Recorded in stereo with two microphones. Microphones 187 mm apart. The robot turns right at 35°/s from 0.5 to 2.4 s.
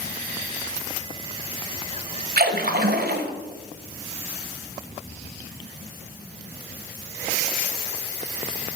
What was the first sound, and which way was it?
A splash, 55° right (ahead or behind).